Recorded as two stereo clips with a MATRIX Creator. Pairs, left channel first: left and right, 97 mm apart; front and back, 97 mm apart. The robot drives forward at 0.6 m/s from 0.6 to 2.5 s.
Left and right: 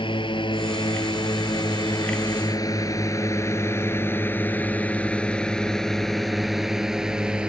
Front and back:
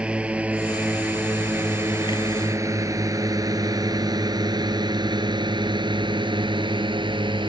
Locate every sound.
0.0 s a drone: 105° left; by 7.5 s 170° right